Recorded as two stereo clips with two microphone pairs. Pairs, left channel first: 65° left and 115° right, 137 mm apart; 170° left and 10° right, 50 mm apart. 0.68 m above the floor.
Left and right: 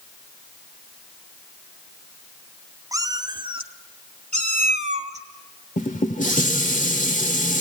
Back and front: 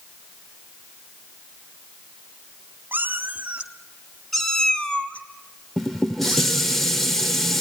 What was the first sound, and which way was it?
A cat meowing, 55° right.